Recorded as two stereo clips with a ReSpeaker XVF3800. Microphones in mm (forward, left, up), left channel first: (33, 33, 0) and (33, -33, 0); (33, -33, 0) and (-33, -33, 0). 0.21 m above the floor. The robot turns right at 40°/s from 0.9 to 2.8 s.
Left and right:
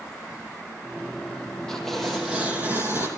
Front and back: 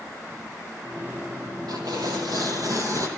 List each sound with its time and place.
1.7 s tearing paper: 170° left, 6.5 m; by 3.1 s 145° right, 6.5 m